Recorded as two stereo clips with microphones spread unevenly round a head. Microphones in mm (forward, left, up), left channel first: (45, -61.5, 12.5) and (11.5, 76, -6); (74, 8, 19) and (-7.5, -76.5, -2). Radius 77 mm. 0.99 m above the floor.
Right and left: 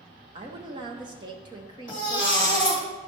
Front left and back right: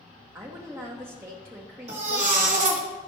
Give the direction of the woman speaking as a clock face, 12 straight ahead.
7 o'clock.